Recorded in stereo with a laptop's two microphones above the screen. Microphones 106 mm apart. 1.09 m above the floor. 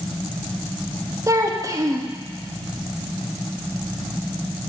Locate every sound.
1.3 s a child speaking: 30° right (ahead or behind), 1.2 m